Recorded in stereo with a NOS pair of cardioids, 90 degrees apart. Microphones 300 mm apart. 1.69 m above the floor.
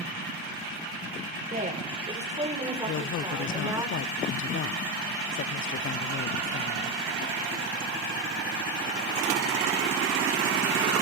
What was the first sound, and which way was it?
A woman speaking, 25° right.